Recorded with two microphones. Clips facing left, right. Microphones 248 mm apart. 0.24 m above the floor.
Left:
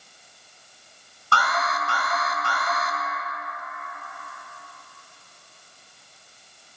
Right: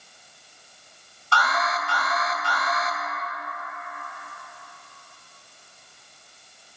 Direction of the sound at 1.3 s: 55° left (ahead or behind).